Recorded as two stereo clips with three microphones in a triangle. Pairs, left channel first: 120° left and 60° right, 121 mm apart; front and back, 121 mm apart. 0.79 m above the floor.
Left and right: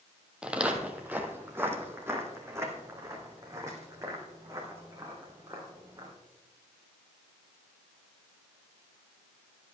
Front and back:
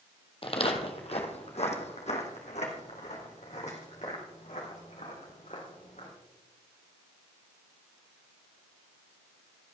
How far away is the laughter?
I don't hear laughter.